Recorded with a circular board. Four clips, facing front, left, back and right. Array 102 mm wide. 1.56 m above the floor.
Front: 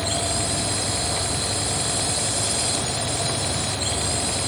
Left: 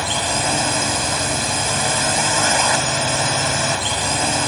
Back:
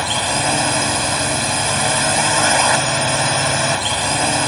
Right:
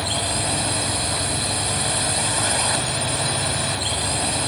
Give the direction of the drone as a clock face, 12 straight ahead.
7 o'clock.